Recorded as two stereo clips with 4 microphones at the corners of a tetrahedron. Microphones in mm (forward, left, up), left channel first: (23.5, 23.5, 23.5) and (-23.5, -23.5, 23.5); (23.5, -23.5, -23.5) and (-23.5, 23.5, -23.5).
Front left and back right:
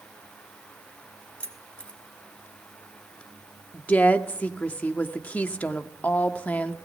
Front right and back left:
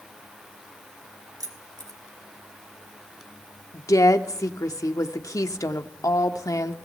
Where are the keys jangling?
115° left, 2.5 m.